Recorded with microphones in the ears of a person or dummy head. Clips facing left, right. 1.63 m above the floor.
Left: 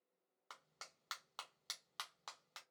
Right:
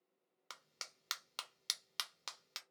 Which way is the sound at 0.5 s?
35° right (ahead or behind).